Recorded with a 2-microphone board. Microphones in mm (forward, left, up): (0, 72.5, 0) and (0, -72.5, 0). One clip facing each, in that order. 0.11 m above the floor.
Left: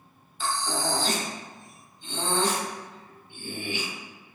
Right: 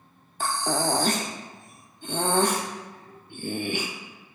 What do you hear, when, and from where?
0.4 s breathing: 55° right (ahead or behind), 0.5 m